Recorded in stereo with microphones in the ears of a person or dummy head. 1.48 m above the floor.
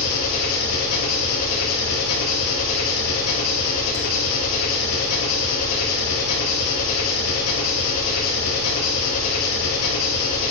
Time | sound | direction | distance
0.0 | an engine running | 85° left | 3 m